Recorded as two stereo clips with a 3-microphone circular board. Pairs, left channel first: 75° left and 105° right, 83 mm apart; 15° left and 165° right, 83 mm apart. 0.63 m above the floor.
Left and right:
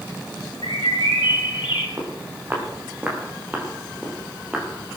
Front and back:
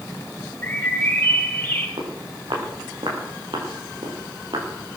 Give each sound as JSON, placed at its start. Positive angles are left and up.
{"t": 0.6, "sound": "a bird", "azimuth_deg": 85, "distance_m": 2.5}
{"t": 2.0, "sound": "footsteps", "azimuth_deg": -165, "distance_m": 6.0}